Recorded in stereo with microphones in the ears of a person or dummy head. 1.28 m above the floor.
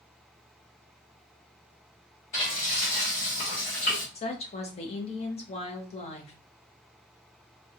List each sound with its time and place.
2.3 s frying: 30° left (ahead or behind), 1.0 m
4.2 s a woman speaking: 30° left (ahead or behind), 0.6 m